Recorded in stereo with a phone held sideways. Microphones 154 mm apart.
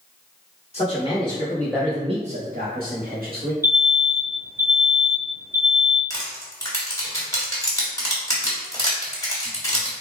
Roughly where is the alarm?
Left.